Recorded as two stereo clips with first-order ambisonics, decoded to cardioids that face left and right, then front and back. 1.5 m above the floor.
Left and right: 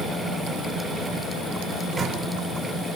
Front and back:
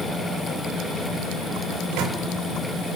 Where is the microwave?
160° right, 4 m.